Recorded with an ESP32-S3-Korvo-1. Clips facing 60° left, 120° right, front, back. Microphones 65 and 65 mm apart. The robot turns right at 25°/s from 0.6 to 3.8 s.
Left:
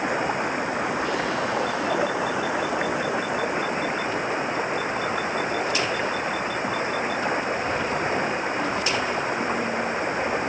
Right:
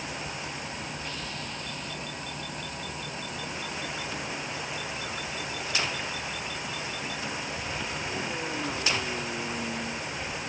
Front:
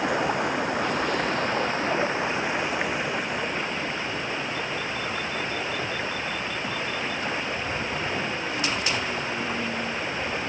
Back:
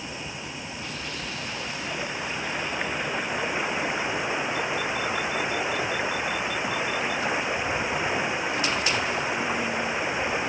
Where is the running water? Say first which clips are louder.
Left 12 dB, front 12 dB; 25° left; by 10.5 s 105° left.